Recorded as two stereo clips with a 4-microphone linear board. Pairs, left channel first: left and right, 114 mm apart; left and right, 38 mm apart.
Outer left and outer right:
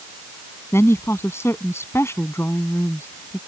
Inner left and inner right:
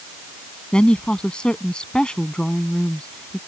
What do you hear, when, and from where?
0.7 s a woman speaking: 25° left (ahead or behind)